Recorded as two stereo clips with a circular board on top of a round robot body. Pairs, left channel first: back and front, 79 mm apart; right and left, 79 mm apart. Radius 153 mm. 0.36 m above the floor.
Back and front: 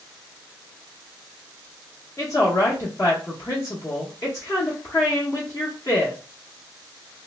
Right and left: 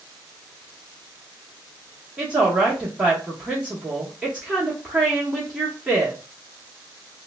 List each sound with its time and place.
2.2 s a woman speaking: 160° left, 1.1 m